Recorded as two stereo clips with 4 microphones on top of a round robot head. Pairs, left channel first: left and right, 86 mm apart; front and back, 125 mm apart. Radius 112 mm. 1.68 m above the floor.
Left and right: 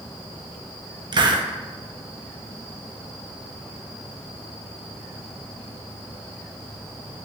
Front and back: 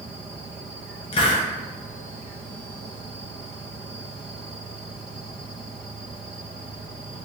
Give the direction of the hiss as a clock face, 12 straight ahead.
2 o'clock.